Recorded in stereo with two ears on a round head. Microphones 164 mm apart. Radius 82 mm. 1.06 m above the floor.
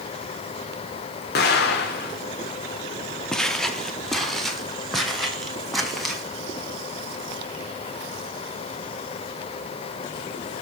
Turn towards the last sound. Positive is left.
turn(degrees=0)  # may be behind; listen again after turning